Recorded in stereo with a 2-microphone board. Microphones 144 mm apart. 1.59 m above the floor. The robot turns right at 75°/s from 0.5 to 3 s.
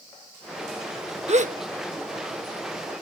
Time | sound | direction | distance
1.3 | a gasp | 50° right (ahead or behind) | ?